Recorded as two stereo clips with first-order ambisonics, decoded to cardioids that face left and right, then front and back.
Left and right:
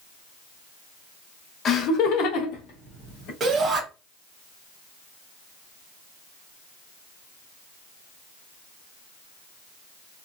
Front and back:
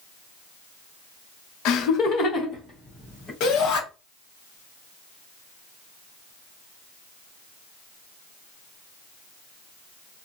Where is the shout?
20° right, 1.2 m.